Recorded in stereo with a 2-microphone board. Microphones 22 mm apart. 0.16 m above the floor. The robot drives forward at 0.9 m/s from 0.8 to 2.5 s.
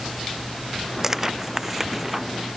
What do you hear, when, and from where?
1.0 s tearing paper: 20° right (ahead or behind); by 2.2 s 15° right (ahead or behind)